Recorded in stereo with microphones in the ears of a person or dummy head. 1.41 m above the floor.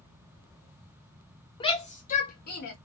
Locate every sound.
1.6 s a shout: 30° left (ahead or behind), 0.8 m; by 2.8 s 65° left (ahead or behind), 1.0 m